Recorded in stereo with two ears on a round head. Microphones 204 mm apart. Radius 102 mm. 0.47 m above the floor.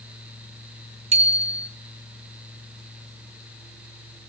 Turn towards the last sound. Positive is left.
turn(degrees=-30)  # may be behind; listen again after turning